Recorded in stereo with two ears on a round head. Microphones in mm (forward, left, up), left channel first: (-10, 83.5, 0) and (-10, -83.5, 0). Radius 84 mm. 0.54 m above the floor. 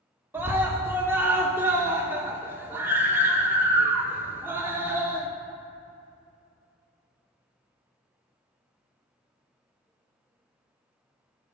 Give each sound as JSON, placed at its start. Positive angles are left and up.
{"t": 0.3, "sound": "a scream", "side_deg": -10, "distance_m": 0.8}